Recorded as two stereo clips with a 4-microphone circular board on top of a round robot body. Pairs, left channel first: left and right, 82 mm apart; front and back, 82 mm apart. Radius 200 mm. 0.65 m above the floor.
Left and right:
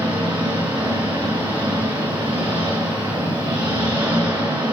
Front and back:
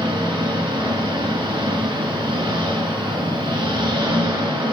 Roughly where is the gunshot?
No gunshot in this recording.